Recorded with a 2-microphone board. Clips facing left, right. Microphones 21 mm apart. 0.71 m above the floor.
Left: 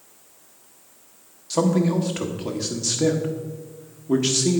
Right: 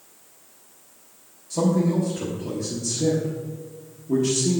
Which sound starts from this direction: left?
A man speaking, at 1.5 s.